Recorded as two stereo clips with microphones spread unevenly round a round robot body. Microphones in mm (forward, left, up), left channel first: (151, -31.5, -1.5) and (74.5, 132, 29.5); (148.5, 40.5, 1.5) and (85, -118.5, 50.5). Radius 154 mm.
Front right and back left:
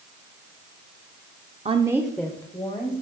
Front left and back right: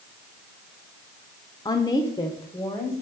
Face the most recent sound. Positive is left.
turn(degrees=-5)